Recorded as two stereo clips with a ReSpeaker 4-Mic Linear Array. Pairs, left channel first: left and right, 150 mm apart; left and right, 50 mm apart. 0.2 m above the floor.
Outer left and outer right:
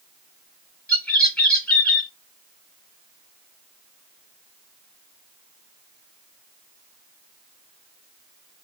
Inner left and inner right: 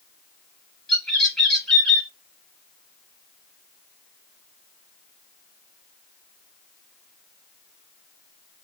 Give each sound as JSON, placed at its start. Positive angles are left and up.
{"t": 0.9, "sound": "a bird", "side_deg": 10, "distance_m": 3.0}